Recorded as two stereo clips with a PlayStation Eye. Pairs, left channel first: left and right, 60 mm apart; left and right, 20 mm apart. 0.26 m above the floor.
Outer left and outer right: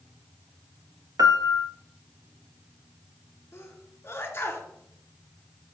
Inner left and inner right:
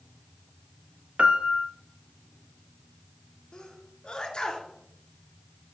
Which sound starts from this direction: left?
A sneeze, at 3.5 s.